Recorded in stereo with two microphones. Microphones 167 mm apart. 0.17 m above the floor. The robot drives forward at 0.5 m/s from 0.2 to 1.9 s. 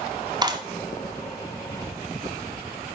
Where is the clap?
25° right (ahead or behind), 1.1 m.